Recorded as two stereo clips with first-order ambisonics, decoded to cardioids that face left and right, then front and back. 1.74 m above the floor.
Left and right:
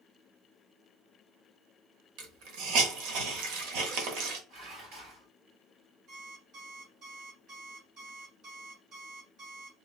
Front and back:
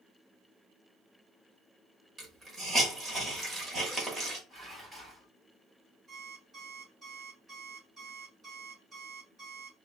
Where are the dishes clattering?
95° right, 1.7 m.